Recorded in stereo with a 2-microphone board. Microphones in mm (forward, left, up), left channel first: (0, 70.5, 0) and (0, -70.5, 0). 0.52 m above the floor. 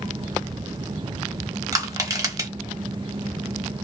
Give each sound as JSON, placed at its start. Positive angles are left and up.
{"t": 1.7, "sound": "crushing", "side_deg": -25, "distance_m": 1.1}